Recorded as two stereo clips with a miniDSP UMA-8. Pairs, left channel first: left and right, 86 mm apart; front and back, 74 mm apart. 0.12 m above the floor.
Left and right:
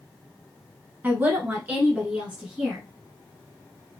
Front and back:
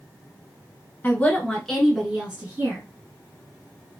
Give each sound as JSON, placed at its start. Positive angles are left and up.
{"t": 1.0, "sound": "a woman speaking", "azimuth_deg": -45, "distance_m": 1.2}